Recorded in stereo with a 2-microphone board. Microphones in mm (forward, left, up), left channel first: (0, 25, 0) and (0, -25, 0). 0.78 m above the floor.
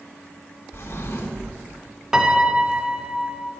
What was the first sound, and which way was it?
A drawer, 55° left (ahead or behind).